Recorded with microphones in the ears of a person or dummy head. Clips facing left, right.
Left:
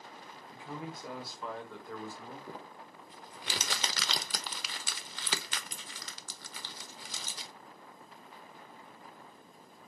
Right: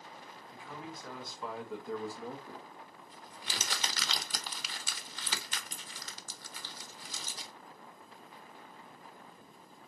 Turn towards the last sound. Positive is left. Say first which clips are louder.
# left 2 dB
turn(degrees=65)  # may be behind; listen again after turning